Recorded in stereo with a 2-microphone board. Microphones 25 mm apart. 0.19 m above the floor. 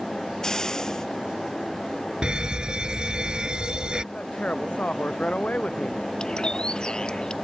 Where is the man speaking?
60° left (ahead or behind).